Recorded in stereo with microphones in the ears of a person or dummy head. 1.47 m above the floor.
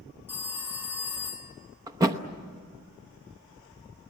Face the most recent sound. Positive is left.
turn(degrees=-20)  # may be behind; listen again after turning